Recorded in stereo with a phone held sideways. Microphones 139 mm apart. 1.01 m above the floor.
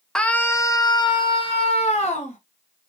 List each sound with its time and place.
0.1 s a scream: 5° left (ahead or behind), 0.9 m; by 2.4 s 55° left (ahead or behind), 1.7 m